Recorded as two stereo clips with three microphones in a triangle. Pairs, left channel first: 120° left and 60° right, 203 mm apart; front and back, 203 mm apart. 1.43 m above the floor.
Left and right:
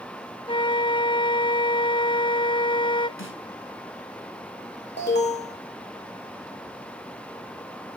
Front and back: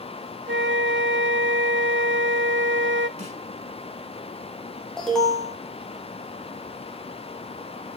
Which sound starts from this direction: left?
An alarm, at 5.0 s.